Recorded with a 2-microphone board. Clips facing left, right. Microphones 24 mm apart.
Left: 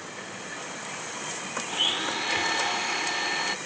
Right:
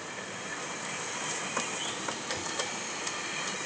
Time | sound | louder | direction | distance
1.7 | a blender | left 8 dB | 70° left (ahead or behind) | ?